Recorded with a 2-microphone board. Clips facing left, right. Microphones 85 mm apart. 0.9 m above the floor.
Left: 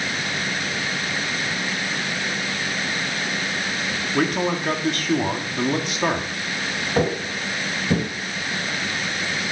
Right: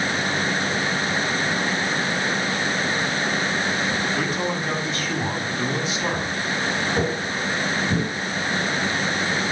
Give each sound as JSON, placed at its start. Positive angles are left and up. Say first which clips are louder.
{"t": 4.1, "sound": "a man speaking", "louder": "left 3 dB", "side_deg": 70, "distance_m": 2.0}
{"t": 7.0, "sound": "footsteps", "louder": "left 1 dB", "side_deg": 45, "distance_m": 5.0}